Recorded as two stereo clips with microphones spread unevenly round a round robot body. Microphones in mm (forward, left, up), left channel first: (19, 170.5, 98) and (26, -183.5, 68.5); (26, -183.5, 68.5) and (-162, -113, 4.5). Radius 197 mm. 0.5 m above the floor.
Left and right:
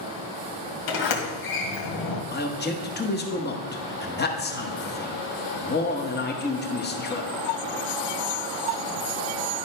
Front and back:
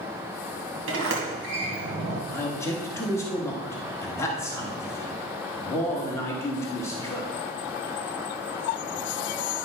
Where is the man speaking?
85° left, 1.2 m.